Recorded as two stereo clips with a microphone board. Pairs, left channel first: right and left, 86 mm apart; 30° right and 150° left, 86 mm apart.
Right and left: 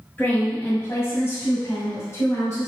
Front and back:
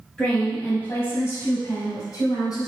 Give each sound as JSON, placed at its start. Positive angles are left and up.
{"t": 0.2, "sound": "a woman speaking", "azimuth_deg": -95, "distance_m": 1.5}